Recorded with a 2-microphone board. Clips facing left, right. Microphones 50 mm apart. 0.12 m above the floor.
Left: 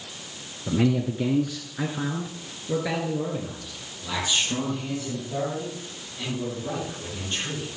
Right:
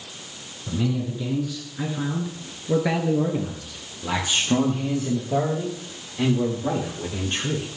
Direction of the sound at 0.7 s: 55° left (ahead or behind).